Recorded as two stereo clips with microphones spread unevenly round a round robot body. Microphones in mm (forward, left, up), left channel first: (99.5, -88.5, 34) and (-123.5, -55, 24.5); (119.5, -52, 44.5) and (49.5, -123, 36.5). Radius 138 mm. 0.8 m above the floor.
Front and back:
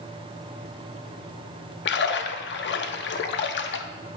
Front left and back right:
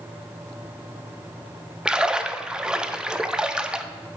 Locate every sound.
1.9 s a splash: 50° right, 0.6 m